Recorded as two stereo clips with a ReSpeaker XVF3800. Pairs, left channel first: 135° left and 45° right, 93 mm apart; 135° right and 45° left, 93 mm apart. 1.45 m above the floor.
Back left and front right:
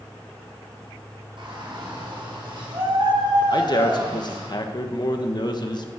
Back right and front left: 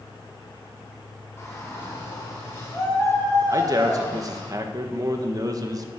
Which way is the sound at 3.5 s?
95° left.